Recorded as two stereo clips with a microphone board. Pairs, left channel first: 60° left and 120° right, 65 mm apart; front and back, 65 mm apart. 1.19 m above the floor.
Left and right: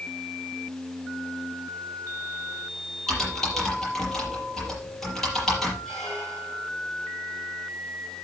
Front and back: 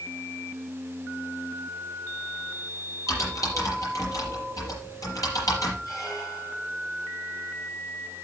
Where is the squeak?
25° right, 7 m.